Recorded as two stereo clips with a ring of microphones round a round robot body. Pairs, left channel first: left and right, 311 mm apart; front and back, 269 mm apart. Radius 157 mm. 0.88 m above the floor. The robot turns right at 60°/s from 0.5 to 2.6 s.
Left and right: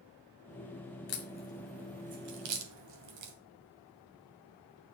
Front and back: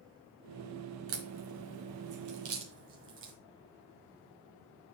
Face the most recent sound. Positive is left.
turn(degrees=-125)